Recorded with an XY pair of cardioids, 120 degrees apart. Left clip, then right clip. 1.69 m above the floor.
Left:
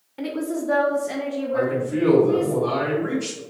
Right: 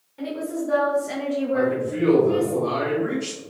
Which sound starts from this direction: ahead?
A man speaking, at 1.5 s.